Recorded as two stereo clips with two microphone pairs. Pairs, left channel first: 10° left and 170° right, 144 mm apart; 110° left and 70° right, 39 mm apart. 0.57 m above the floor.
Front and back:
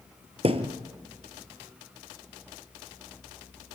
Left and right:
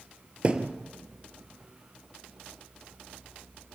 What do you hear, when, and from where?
0.4 s a thud: 125° right, 1.9 m